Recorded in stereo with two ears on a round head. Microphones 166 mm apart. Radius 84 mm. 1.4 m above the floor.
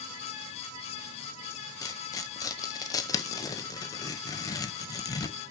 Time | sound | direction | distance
1.8 | tearing paper | 20° left (ahead or behind) | 0.8 m